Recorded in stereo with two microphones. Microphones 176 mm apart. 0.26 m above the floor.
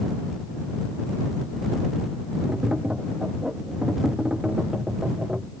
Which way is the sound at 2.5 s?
5° right (ahead or behind).